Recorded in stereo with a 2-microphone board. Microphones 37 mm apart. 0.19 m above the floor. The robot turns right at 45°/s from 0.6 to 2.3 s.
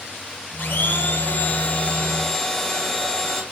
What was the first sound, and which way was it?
A blender, 90° left.